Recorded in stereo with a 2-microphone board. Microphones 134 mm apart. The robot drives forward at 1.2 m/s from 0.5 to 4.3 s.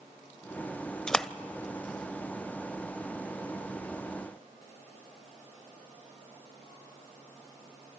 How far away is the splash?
About 0.5 m.